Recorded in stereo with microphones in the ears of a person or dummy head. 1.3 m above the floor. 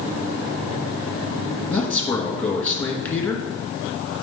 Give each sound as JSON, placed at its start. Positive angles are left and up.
{"t": 1.7, "sound": "a man speaking", "side_deg": 10, "distance_m": 1.3}